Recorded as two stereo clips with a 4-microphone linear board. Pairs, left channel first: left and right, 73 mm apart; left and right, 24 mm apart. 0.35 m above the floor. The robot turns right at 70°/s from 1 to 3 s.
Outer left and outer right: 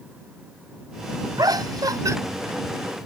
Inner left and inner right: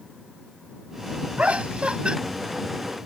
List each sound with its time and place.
1.4 s laughter: 110° right; by 2.2 s 50° right